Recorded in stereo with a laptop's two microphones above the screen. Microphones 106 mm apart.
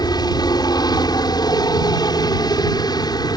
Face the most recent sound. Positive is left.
turn(degrees=40)  # may be behind; listen again after turning